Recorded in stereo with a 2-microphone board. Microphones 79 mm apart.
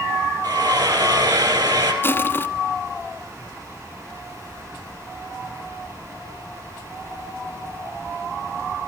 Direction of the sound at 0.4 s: 65° right (ahead or behind).